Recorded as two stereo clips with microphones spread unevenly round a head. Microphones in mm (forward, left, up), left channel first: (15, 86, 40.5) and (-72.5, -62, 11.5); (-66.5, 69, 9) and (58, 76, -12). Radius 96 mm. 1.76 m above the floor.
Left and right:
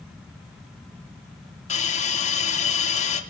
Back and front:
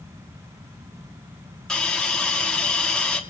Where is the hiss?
105° left, 2.5 m.